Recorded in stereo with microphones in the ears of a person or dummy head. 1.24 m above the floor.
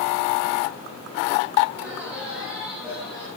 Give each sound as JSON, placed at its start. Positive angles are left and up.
{"t": 1.7, "sound": "laughter", "side_deg": -5, "distance_m": 7.0}